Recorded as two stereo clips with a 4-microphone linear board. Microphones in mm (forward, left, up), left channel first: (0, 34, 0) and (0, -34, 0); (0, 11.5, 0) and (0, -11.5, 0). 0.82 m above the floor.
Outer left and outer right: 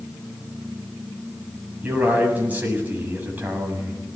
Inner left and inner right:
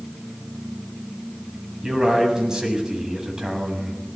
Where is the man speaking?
25° right (ahead or behind), 7 m.